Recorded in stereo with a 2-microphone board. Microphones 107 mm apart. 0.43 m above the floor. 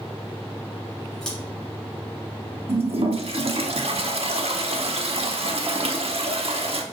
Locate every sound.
1.2 s scissors: 5° left (ahead or behind), 1.6 m
2.7 s a toilet flushing: 65° right (ahead or behind), 0.6 m